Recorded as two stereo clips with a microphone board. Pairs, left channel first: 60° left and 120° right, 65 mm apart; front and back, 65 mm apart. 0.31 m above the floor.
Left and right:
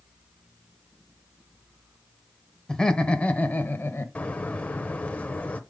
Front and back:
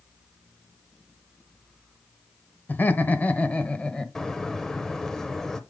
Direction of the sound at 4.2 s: 70° left.